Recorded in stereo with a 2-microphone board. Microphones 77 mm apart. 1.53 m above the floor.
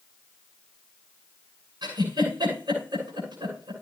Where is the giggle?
75° right (ahead or behind), 8.5 m.